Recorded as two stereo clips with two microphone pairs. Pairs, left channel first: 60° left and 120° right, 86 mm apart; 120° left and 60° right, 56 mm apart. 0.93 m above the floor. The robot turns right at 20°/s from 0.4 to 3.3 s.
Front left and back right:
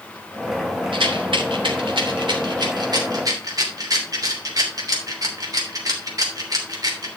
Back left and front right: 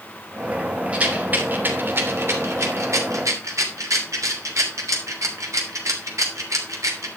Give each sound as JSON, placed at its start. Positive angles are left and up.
{"t": 0.9, "sound": "a rattle", "azimuth_deg": -125, "distance_m": 3.0}